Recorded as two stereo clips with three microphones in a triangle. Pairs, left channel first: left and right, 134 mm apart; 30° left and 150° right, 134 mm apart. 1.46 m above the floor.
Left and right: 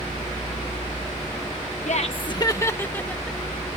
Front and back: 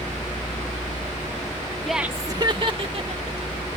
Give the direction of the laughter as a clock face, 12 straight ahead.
8 o'clock.